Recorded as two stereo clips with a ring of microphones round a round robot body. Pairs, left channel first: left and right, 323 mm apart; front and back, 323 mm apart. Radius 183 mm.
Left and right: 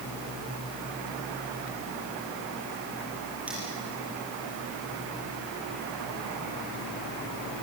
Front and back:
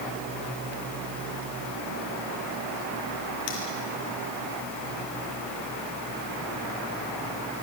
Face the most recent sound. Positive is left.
turn(degrees=-5)